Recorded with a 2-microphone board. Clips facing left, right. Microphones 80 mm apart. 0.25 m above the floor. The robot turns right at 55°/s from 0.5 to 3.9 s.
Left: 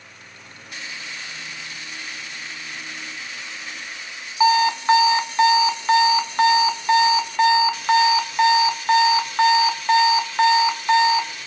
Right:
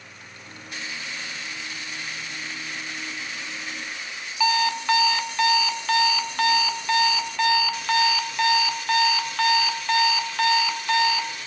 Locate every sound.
4.4 s an alarm clock: 25° left (ahead or behind), 0.8 m